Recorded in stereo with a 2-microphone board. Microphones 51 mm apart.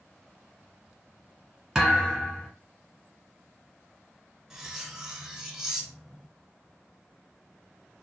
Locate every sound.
1.8 s a thud: 10° right (ahead or behind), 1.5 m
4.5 s cutlery clinking: 10° right (ahead or behind), 0.7 m